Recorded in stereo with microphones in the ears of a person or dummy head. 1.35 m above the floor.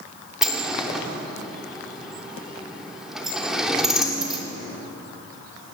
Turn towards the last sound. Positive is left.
turn(degrees=-5)  # may be behind; listen again after turning